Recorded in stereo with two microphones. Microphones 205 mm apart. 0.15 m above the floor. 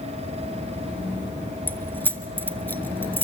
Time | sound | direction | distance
1.7 | keys jangling | 10° left (ahead or behind) | 1.3 m